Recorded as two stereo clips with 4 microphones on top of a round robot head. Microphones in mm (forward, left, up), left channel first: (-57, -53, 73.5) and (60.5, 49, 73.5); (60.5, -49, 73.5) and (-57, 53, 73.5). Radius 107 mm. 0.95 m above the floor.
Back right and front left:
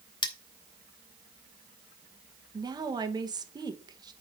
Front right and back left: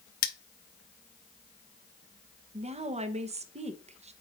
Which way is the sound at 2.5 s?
100° left.